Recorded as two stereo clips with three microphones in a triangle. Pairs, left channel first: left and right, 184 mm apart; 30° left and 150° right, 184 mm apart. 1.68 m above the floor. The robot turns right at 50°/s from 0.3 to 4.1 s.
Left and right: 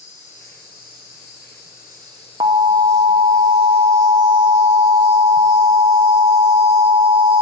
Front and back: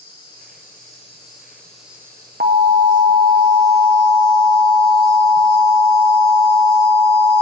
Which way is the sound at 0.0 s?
45° left.